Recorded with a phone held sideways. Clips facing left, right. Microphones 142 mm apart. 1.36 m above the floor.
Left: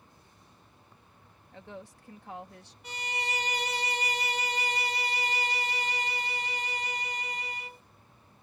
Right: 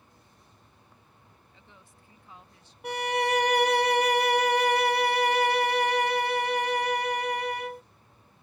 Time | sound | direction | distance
1.5 | a woman speaking | 75° left (ahead or behind) | ?
2.8 | a violin | 60° right (ahead or behind) | ?